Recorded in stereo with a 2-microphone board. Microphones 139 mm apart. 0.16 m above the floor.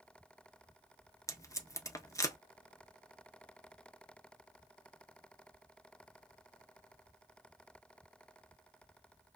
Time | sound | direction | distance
1.3 | tape being pulled | 20° left (ahead or behind) | 0.7 m